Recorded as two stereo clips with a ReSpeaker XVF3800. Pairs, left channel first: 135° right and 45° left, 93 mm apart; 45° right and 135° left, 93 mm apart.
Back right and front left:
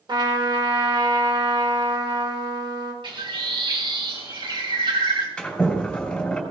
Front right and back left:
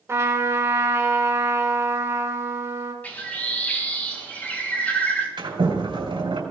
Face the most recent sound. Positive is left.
turn(degrees=140)